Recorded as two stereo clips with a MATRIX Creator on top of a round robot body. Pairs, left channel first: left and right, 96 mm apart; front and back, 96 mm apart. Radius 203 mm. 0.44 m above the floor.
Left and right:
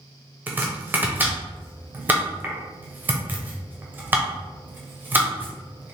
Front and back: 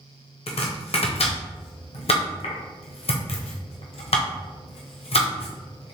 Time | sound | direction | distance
0.5 | chopping | 20° right | 0.9 m